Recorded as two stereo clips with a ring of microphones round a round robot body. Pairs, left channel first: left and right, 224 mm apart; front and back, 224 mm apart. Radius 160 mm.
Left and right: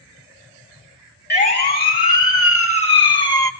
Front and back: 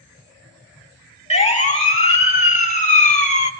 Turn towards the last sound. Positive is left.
turn(degrees=25)